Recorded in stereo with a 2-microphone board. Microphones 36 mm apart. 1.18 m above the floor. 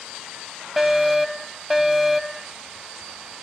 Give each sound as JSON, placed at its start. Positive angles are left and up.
{"t": 0.8, "sound": "a fire alarm", "side_deg": -5}